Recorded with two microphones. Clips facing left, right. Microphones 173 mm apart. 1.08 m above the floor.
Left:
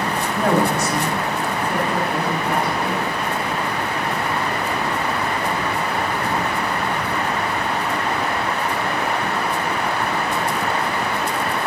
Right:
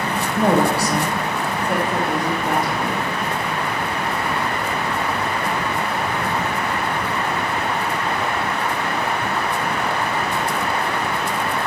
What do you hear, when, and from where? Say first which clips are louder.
0.4 s a woman speaking: right 2 dB; 15° right (ahead or behind), 0.9 m; by 3.0 s 85° right, 1.9 m